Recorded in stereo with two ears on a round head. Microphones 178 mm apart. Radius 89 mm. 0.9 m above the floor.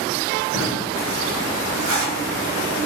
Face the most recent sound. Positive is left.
turn(degrees=-80)